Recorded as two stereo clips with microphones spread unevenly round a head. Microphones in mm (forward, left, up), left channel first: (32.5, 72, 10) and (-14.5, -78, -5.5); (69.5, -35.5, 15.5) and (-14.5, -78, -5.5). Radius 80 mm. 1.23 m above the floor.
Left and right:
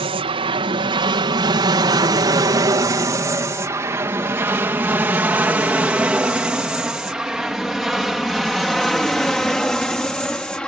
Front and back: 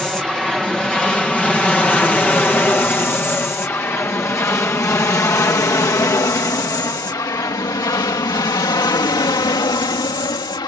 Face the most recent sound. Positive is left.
turn(degrees=-10)